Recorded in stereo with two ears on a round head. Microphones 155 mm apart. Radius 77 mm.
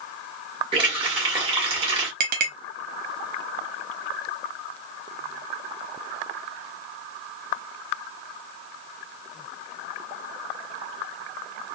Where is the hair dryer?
No hair dryer in this recording.